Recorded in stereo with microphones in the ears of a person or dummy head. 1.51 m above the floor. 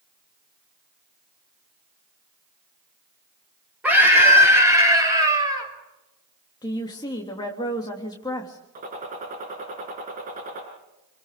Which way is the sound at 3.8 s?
5° right (ahead or behind).